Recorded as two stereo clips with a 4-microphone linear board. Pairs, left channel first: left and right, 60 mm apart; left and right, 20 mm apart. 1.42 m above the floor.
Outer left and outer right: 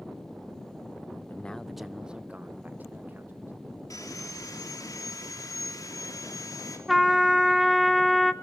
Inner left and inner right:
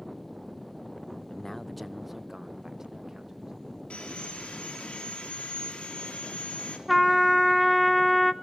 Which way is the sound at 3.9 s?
75° left (ahead or behind).